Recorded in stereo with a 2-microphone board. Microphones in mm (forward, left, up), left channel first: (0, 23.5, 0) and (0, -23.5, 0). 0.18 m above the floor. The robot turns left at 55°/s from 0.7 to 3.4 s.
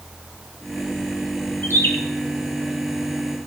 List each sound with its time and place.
1.6 s a bird: 60° left (ahead or behind), 1.6 m; by 1.9 s 55° left (ahead or behind), 1.6 m